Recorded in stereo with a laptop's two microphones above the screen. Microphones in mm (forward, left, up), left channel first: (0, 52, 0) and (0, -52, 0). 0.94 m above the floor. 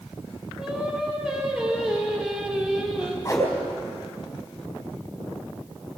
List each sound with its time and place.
0.6 s singing: 5° right (ahead or behind), 3.5 m
3.2 s a whoosh: 30° left (ahead or behind), 4 m